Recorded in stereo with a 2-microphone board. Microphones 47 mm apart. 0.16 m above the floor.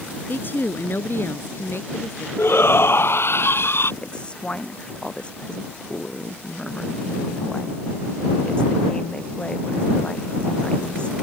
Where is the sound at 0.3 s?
50° left (ahead or behind); by 2.3 s 65° left (ahead or behind).